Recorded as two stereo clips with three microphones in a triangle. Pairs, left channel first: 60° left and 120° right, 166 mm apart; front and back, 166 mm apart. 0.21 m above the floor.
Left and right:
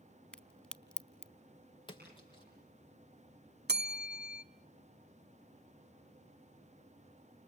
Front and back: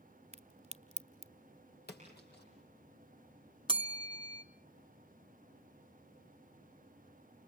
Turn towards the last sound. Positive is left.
turn(degrees=-120)